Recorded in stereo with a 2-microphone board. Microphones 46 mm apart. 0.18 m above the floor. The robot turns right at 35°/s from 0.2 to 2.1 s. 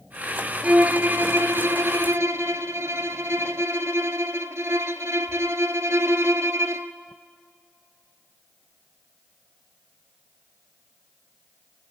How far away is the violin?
About 0.7 m.